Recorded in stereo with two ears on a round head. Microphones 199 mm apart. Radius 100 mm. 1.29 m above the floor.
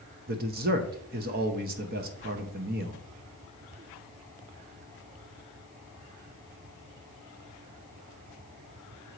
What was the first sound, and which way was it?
A man speaking, 45° right (ahead or behind).